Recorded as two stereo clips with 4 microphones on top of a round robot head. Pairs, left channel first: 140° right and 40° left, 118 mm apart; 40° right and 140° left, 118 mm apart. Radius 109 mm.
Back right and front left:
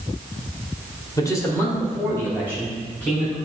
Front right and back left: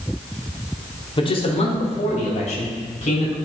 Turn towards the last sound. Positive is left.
turn(degrees=-60)